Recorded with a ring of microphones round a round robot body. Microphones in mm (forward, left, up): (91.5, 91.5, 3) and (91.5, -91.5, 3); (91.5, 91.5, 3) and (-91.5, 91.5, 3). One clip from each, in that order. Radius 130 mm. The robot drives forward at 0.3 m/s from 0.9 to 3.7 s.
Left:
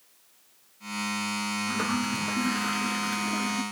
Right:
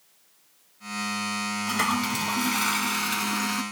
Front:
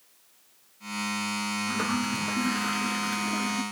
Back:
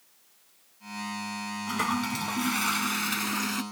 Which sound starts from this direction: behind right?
A toilet flushing, at 1.7 s.